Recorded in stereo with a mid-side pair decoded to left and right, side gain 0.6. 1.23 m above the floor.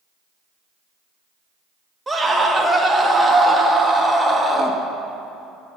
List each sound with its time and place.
2.1 s a scream: 10° right, 2.0 m